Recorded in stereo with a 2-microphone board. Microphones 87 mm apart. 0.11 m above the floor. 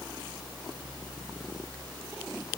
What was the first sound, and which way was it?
Only background noise.